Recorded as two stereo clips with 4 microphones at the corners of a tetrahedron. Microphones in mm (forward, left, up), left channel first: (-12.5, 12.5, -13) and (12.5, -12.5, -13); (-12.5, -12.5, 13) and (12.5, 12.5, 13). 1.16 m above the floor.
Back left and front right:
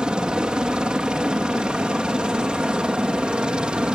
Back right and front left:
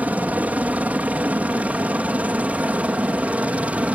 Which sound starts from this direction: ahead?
A helicopter, at 0.0 s.